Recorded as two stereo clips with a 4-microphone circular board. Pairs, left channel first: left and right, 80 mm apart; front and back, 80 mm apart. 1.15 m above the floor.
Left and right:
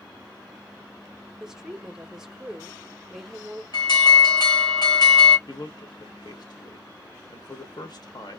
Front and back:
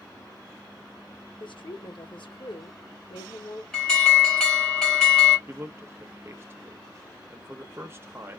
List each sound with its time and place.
1.4 s a woman speaking: 5° right, 1.0 m
3.7 s an alarm: 80° left, 2 m
5.5 s a man speaking: 120° left, 1.0 m